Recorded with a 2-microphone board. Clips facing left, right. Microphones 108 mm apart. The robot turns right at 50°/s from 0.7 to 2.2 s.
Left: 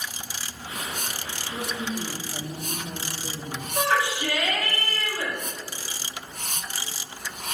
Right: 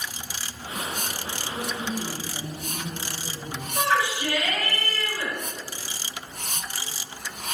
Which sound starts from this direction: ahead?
A woman speaking, at 1.5 s.